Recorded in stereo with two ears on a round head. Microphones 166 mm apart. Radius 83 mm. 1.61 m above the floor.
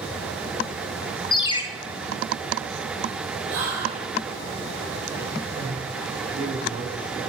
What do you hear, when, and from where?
1.3 s a ringtone: 25° left (ahead or behind), 0.7 m
3.5 s whispering: 80° right, 5.5 m
5.5 s a man speaking: 55° right (ahead or behind), 4.5 m